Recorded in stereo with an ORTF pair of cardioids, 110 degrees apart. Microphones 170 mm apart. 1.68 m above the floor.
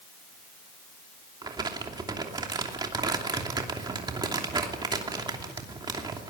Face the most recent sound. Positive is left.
turn(degrees=-25)